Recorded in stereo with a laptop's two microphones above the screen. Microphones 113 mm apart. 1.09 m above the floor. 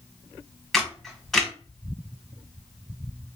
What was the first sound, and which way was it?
A camera shutter, 5° left (ahead or behind).